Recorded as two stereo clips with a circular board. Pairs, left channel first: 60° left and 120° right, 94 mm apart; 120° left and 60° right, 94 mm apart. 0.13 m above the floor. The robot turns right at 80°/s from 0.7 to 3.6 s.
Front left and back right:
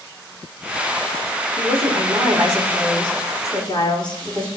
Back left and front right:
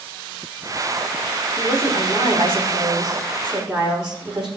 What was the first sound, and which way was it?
A woman speaking, 140° right.